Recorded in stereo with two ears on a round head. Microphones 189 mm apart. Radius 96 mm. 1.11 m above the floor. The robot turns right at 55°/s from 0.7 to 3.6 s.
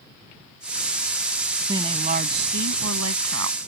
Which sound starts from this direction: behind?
A woman speaking, at 1.7 s.